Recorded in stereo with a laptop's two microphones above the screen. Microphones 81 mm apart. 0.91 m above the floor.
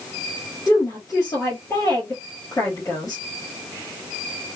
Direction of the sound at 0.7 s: 45° left (ahead or behind).